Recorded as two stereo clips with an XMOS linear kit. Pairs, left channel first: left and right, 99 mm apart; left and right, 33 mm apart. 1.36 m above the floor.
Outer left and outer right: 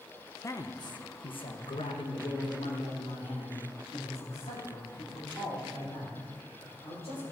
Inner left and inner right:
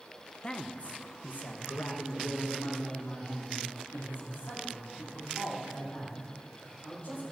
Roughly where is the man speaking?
Left.